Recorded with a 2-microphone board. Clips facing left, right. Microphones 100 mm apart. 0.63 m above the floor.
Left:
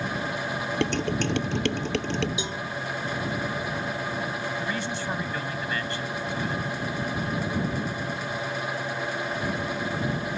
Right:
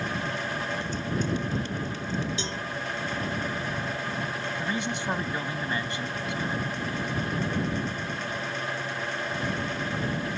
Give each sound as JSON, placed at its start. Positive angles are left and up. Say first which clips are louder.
{"t": 0.8, "sound": "dishes clattering", "louder": "left 4 dB", "side_deg": 75}
{"t": 2.4, "sound": "a cowbell", "louder": "left 1 dB", "side_deg": 15}
{"t": 4.6, "sound": "a man speaking", "louder": "even", "side_deg": -20}